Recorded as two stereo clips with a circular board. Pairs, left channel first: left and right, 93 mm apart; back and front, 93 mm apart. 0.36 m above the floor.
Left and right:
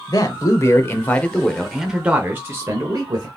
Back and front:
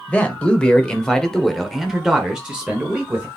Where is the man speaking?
110° left, 1.2 m; by 3.3 s 70° right, 1.2 m.